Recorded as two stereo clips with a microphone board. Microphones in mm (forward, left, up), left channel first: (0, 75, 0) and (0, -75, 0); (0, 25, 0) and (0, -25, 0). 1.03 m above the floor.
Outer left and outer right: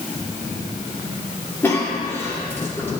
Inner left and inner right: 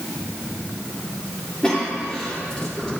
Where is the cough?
15° left (ahead or behind), 2 m.